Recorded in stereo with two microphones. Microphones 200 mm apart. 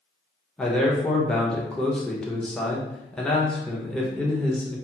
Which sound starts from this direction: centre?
A man speaking, at 0.6 s.